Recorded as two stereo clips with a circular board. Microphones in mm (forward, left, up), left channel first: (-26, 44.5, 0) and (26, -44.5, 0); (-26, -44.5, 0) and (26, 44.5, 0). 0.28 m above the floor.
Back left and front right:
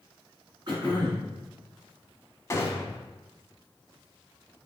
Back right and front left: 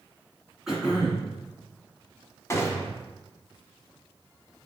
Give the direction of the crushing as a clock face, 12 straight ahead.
I don't hear crushing.